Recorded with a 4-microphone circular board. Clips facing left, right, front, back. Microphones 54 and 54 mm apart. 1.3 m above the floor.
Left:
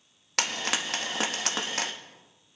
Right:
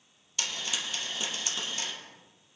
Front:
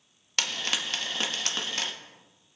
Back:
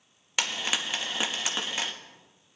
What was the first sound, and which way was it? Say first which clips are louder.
Frying: left 6 dB, back 1 dB; 105° left.